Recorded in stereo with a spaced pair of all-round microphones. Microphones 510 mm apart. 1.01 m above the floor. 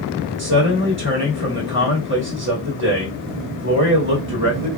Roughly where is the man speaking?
Right.